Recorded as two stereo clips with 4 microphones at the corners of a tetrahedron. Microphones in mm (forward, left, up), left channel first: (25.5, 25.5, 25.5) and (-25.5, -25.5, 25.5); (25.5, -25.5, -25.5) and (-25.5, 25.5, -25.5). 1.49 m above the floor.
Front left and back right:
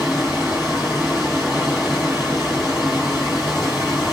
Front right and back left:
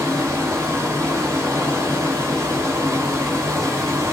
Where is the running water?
140° left, 1.9 m.